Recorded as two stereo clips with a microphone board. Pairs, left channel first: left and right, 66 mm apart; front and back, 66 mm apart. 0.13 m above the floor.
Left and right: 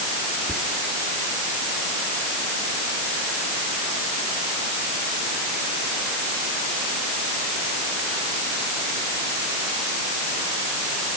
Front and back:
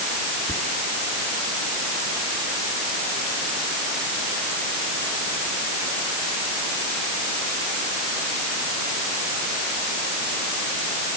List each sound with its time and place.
0.5 s whispering: 30° left, 1.8 m